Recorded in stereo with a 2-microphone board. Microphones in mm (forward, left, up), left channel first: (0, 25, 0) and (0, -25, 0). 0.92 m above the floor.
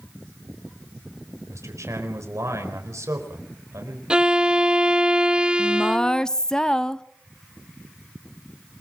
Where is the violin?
20° right (ahead or behind), 0.5 m.